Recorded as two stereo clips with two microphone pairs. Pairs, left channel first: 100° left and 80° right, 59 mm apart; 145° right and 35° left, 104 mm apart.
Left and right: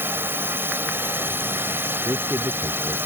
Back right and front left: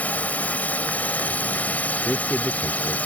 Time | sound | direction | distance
0.0 | a drone | 80° right | ?
2.0 | a man speaking | 60° right | ?